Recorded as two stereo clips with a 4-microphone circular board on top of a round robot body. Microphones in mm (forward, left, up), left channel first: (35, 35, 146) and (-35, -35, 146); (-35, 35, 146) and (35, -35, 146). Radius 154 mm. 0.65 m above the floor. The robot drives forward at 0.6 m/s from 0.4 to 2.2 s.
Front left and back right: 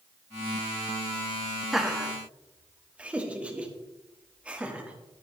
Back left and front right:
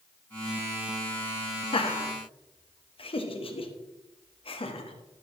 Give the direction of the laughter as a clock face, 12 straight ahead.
7 o'clock.